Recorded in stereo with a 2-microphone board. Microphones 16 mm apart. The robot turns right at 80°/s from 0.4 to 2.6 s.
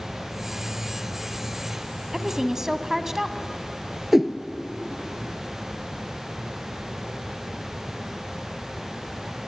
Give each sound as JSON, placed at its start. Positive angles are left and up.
{"t": 2.1, "sound": "a woman speaking", "azimuth_deg": -105, "distance_m": 1.4}
{"t": 4.1, "sound": "a whoosh", "side_deg": -20, "distance_m": 1.3}